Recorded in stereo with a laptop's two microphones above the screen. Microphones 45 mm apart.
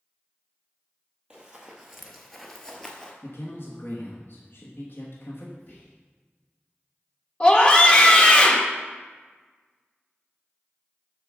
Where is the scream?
25° left (ahead or behind), 1.1 m.